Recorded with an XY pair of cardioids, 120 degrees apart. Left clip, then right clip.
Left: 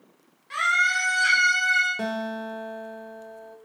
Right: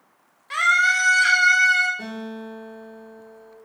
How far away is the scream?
About 0.7 m.